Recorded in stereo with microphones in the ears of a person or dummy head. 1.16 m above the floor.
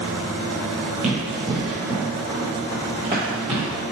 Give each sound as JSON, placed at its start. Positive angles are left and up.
{"t": 1.0, "sound": "running footsteps", "side_deg": -5, "distance_m": 1.2}